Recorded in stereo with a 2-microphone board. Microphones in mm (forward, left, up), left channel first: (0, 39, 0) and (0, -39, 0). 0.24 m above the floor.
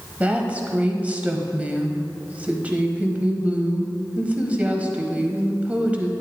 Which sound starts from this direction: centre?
A woman speaking, at 0.2 s.